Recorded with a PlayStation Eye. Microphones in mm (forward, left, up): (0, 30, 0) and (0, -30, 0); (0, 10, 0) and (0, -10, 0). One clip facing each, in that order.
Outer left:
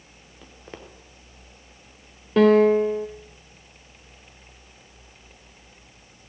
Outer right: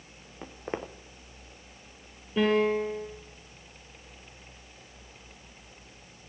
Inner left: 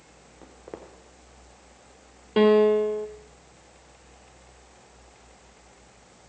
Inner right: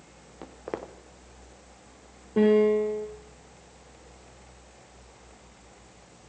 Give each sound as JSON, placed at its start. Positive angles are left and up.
{"t": 0.4, "sound": "footsteps", "side_deg": -30, "distance_m": 1.2}
{"t": 2.4, "sound": "a piano", "side_deg": 75, "distance_m": 1.6}